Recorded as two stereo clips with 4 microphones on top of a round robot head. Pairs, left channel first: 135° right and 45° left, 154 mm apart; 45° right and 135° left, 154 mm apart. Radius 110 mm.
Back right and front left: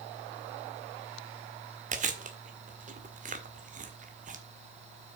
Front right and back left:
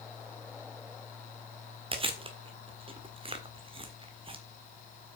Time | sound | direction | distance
1.9 | chewing | 80° left | 1.7 m